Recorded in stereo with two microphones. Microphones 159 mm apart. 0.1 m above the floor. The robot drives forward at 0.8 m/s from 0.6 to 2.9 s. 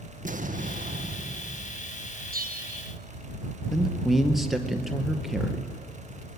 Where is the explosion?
55° right (ahead or behind), 2.0 m; by 1.9 s 75° right (ahead or behind), 1.7 m.